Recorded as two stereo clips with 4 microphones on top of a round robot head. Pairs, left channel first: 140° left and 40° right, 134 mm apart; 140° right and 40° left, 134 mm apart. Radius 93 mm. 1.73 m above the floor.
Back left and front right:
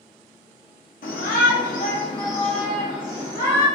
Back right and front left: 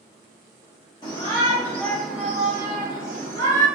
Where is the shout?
160° left, 0.9 m; by 3.7 s 10° left, 0.8 m.